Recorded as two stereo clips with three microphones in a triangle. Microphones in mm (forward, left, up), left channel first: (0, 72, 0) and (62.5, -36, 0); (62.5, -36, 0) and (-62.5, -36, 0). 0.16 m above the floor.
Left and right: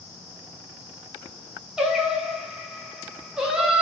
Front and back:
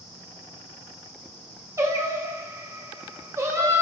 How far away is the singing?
About 0.6 m.